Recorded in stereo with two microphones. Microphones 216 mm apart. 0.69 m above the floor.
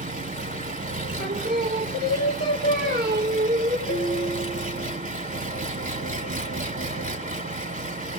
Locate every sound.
0.0 s an engine running: 35° right (ahead or behind), 1.2 m
1.2 s singing: 50° right (ahead or behind), 2.5 m
3.9 s a piano: 55° right (ahead or behind), 3 m